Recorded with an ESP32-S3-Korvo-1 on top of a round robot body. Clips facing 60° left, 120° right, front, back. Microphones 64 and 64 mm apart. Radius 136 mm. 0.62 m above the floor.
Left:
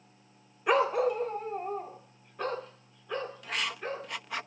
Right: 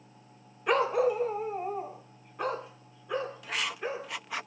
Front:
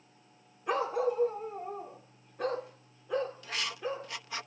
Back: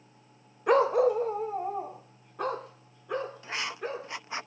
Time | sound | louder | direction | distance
0.7 | a dog barking | even, back 8 dB | 145° left | 0.6 m
3.4 | writing | right 1 dB, back 1 dB | 155° left | 1.0 m